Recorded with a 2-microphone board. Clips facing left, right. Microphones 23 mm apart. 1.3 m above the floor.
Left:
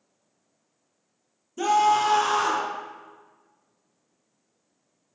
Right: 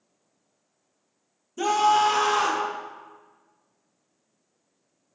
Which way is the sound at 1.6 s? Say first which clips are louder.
Even; 5° right (ahead or behind).